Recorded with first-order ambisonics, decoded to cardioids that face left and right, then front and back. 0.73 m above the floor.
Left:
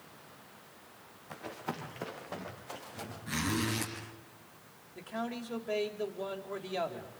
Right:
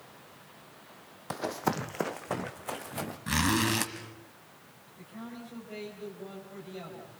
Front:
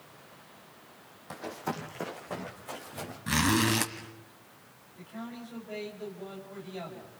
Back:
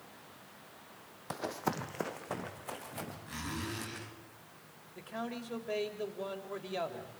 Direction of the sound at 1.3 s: 110° right.